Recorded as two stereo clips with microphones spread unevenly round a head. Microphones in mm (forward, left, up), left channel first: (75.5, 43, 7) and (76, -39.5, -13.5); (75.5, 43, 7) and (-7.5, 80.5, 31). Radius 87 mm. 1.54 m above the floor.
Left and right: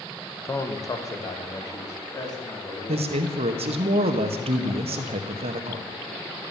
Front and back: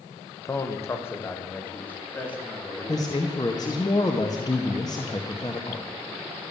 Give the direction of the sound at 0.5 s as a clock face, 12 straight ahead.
11 o'clock.